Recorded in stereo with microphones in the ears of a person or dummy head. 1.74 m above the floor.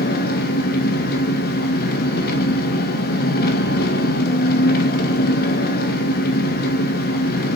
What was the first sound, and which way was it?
An engine running, 55° left (ahead or behind).